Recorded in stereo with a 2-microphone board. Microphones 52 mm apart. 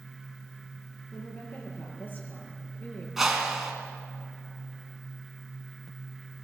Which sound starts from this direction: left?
A woman speaking, at 1.1 s.